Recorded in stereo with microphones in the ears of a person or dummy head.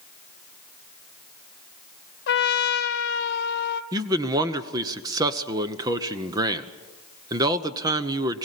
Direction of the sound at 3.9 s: 20° right (ahead or behind).